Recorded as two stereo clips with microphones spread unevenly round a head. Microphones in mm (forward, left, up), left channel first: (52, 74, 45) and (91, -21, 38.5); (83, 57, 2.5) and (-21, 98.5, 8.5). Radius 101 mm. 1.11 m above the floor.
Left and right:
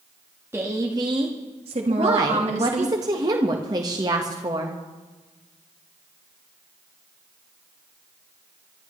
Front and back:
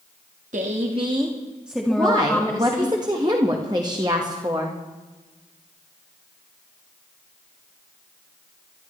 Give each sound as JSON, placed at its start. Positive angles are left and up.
{"t": 0.5, "sound": "a woman speaking", "azimuth_deg": -145, "distance_m": 1.5}
{"t": 1.9, "sound": "a woman speaking", "azimuth_deg": -130, "distance_m": 1.4}